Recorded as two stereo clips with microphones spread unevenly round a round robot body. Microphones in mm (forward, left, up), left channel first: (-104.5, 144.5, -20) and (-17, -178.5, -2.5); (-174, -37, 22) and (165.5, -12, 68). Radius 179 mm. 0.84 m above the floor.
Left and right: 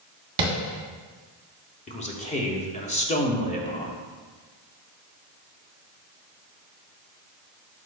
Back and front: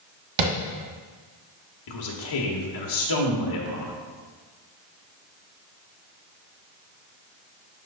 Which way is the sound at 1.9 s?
175° left.